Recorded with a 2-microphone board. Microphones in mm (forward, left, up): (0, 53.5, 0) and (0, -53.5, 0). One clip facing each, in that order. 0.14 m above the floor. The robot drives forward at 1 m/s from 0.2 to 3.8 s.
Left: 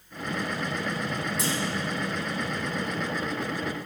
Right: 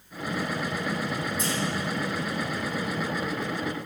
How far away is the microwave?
I don't hear a microwave.